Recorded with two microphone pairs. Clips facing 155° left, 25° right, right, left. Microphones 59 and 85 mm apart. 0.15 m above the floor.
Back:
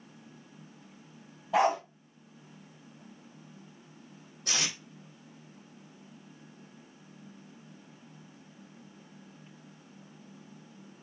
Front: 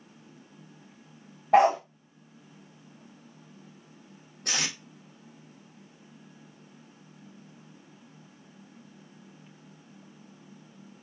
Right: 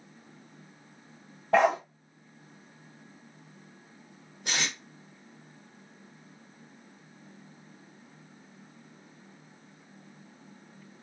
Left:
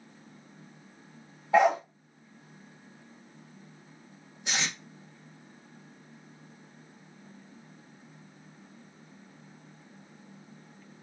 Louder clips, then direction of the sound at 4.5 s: Front 2 dB, even; 55° right.